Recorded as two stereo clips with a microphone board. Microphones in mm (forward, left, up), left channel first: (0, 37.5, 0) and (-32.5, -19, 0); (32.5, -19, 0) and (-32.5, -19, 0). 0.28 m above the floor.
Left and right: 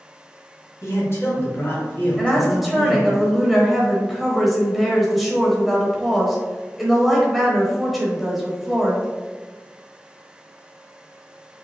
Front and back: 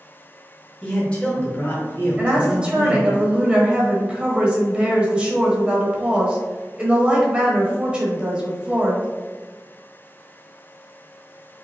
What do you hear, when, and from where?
0.8 s a man speaking: 70° left, 1.8 m; by 3.2 s 30° right, 1.8 m
2.2 s a woman speaking: 150° left, 0.9 m